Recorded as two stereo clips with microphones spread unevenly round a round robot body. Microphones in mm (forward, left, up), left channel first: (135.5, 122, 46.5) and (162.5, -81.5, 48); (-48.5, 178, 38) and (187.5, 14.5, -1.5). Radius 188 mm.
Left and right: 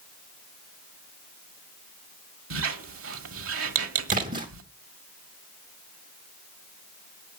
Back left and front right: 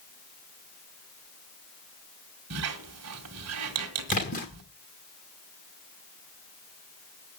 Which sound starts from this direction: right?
A squeak, at 2.5 s.